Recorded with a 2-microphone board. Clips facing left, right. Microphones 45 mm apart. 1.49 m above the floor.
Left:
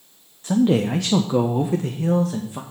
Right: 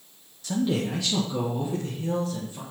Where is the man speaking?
30° left (ahead or behind), 0.6 m; by 2.6 s 80° left, 1.5 m.